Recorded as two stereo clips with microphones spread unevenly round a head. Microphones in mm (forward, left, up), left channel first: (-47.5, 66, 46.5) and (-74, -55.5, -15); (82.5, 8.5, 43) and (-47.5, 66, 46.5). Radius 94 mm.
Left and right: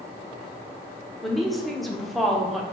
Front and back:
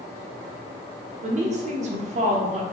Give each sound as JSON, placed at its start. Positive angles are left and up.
{"t": 1.2, "sound": "a woman speaking", "azimuth_deg": -175, "distance_m": 0.7}